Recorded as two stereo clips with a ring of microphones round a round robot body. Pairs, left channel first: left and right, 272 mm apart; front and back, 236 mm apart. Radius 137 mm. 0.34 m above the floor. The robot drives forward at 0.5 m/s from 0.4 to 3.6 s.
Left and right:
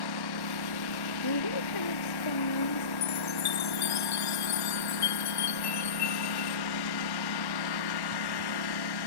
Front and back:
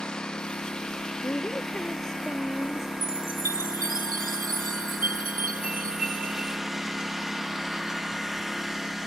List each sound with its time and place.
0.0 s a lawn mower: 90° left
1.2 s a woman speaking: 85° left; by 2.9 s 90° left
3.0 s a chime: 125° left